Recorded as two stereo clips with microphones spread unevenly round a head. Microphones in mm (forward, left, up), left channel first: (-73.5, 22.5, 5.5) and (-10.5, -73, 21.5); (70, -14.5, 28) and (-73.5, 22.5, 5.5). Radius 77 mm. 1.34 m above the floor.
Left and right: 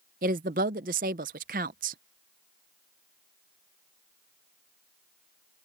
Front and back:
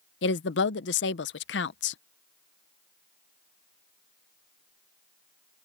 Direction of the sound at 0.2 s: 30° right.